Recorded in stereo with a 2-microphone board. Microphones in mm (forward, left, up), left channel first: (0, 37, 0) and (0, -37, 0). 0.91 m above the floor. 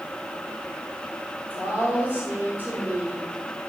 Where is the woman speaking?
25° right (ahead or behind), 4.5 m.